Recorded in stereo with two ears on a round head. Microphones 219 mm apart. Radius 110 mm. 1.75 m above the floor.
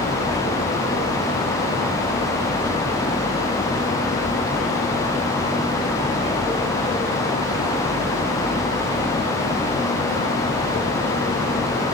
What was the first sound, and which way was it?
Only background noise.